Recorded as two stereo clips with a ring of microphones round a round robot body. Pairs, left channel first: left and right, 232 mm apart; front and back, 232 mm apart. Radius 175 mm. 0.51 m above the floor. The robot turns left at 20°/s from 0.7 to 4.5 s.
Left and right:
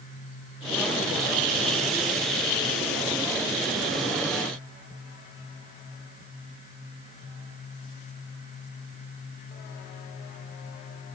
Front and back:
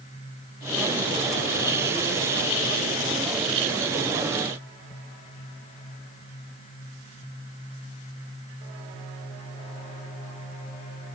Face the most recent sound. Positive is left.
No sound to turn to.